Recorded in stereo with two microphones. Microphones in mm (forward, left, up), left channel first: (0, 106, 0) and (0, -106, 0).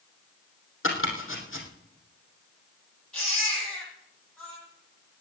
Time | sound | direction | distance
0.8 | chopping | 80° left | 3 m
3.1 | a baby crying | 5° left (ahead or behind) | 9 m